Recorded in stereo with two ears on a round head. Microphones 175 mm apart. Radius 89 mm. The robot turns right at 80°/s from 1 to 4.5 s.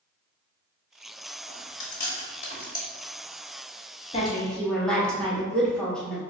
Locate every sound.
1.5 s chewing: 30° left (ahead or behind), 1.2 m; by 2.9 s 15° left (ahead or behind), 1.2 m
4.1 s a woman speaking: 35° left (ahead or behind), 1.0 m; by 6.2 s 5° left (ahead or behind), 1.0 m